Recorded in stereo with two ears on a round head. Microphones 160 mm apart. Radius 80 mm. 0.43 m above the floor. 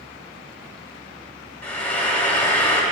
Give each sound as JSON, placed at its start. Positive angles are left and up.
{"t": 1.6, "sound": "frying", "side_deg": 10, "distance_m": 1.6}